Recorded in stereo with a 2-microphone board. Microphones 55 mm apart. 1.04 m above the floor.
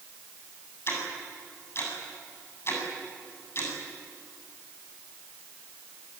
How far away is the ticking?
About 8 m.